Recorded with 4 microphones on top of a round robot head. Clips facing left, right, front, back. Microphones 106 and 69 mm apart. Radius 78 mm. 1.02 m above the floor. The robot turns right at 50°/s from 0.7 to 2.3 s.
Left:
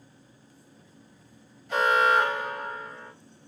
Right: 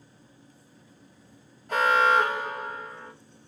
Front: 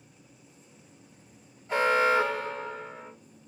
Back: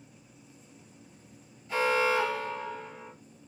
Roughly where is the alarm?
Ahead right.